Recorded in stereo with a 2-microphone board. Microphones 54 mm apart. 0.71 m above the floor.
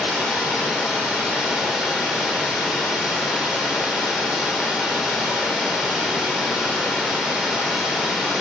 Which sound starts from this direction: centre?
Running water, at 0.0 s.